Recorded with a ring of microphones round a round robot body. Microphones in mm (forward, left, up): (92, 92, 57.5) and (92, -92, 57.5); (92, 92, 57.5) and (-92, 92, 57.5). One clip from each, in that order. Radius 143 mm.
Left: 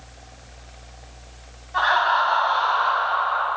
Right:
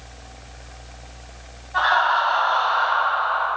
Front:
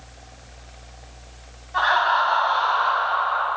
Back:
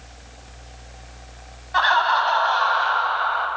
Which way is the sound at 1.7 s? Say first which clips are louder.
Right 1 dB, back 1 dB; 170° left.